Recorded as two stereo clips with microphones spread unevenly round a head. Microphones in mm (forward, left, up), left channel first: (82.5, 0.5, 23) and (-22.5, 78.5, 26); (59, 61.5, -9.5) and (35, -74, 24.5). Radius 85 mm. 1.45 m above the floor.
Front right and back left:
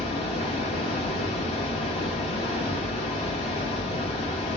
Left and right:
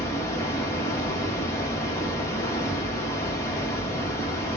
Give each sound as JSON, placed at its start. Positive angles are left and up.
{"t": 0.0, "sound": "running water", "azimuth_deg": 5, "distance_m": 1.0}